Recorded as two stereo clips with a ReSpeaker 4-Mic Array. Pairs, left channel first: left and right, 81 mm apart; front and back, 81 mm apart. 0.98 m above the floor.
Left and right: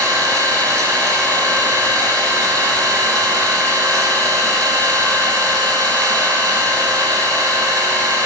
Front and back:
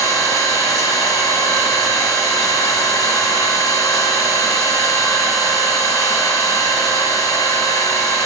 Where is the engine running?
45° right, 1.4 m.